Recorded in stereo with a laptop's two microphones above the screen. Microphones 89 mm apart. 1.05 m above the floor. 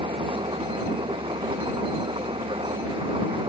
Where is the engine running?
75° right (ahead or behind).